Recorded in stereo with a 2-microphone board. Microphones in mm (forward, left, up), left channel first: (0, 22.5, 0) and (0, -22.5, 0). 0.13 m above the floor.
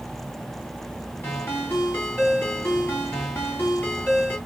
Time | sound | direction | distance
1.2 | a ringtone | 55° left (ahead or behind) | 2.0 m